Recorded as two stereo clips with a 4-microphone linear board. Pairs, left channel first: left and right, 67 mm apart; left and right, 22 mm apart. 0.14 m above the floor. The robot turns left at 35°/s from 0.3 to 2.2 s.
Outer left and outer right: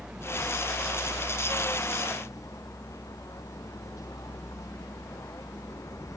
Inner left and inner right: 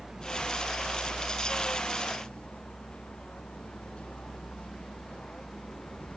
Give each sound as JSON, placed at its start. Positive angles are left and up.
{"t": 0.0, "sound": "a vehicle", "azimuth_deg": -170}